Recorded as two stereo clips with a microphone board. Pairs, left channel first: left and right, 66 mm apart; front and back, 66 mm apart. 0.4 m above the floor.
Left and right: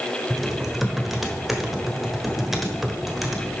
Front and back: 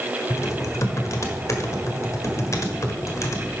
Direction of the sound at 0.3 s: 5° right.